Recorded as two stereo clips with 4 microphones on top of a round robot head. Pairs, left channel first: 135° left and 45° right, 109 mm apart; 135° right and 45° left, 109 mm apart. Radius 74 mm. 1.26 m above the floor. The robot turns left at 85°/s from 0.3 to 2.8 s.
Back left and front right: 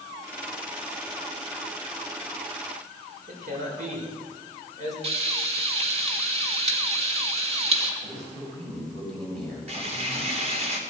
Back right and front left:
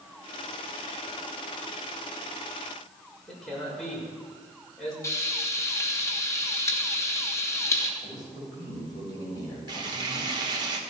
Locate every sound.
3.3 s a man speaking: 50° right, 6.5 m
5.0 s frying: 70° right, 2.5 m
8.0 s a man speaking: 80° right, 9 m
9.7 s frying: 10° right, 2.5 m